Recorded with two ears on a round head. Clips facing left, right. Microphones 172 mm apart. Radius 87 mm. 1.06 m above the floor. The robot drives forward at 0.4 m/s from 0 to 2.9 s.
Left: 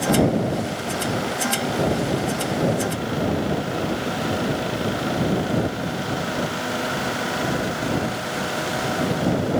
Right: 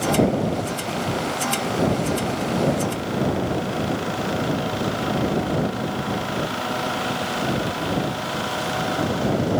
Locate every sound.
Only background noise.